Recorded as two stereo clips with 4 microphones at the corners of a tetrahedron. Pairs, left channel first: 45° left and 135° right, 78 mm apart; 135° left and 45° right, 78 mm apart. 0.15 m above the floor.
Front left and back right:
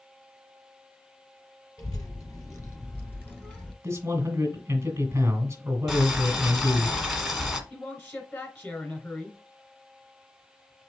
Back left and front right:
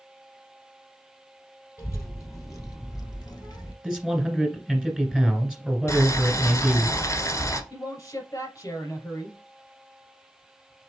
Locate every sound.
1.8 s a child speaking: 85° left, 2.5 m; by 3.7 s 120° left, 1.5 m
3.8 s a man speaking: 120° right, 1.9 m
5.9 s boiling: 135° left, 1.3 m
7.7 s a man speaking: 100° left, 2.5 m